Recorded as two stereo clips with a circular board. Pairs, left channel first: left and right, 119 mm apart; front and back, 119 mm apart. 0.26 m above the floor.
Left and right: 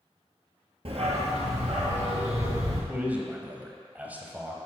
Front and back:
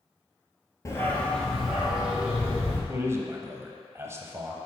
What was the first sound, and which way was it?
A dog barking, 60° right.